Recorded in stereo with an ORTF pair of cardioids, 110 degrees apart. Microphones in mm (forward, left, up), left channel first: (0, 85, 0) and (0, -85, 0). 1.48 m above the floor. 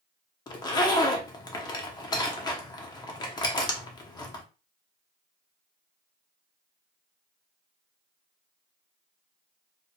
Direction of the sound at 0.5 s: 25° left.